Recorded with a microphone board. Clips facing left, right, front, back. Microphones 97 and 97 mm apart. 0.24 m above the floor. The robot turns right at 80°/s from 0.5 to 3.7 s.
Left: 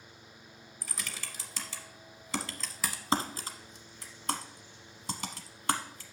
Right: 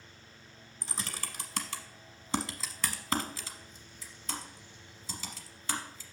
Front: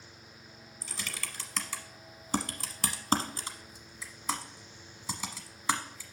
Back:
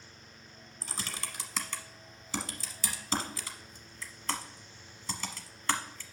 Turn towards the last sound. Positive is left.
turn(degrees=80)